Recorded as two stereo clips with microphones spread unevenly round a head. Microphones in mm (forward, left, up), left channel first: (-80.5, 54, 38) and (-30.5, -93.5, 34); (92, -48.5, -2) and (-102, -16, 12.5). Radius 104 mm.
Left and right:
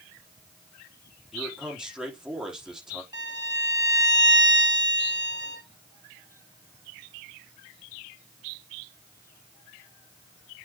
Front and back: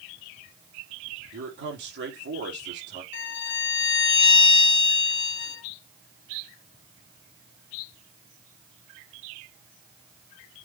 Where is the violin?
5° right, 1.6 m.